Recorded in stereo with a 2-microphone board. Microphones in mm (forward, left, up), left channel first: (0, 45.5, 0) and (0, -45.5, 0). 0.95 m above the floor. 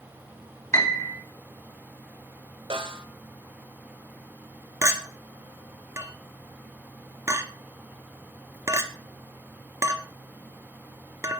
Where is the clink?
30° right (ahead or behind), 1.1 m.